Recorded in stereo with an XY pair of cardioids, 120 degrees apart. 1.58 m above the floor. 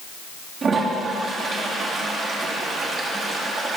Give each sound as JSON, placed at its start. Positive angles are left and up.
{"t": 0.6, "sound": "a toilet flushing", "azimuth_deg": -40, "distance_m": 2.5}